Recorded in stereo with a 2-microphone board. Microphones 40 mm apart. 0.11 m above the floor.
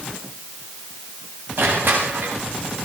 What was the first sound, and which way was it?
Crushing, 60° right (ahead or behind).